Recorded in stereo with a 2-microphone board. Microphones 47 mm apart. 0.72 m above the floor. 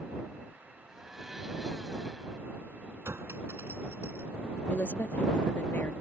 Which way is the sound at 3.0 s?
70° right (ahead or behind).